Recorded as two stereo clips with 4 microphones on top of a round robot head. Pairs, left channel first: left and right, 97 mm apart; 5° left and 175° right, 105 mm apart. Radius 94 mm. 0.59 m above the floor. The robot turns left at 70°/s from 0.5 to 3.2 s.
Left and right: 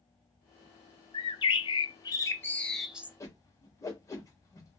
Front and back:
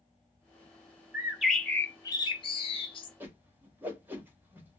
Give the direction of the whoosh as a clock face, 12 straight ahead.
8 o'clock.